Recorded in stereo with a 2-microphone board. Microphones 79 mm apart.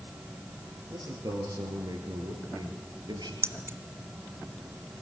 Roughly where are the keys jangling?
Right.